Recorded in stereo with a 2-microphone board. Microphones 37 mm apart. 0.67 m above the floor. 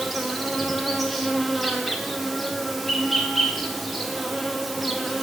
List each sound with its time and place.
0.0 s an insect: centre (ahead or behind), 0.9 m